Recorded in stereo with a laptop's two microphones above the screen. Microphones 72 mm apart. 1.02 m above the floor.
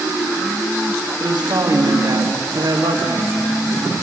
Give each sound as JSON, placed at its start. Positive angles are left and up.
{"t": 1.2, "sound": "a man speaking", "side_deg": -75, "distance_m": 1.7}